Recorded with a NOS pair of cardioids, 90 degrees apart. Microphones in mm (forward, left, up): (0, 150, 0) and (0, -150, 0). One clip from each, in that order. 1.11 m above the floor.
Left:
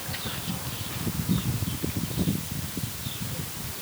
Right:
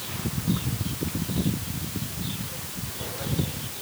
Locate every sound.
Only background noise.